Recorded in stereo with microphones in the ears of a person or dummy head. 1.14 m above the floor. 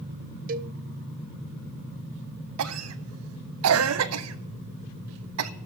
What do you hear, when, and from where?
0.5 s a cowbell: 40° right (ahead or behind), 0.6 m
2.6 s a cough: 75° right (ahead or behind), 1.1 m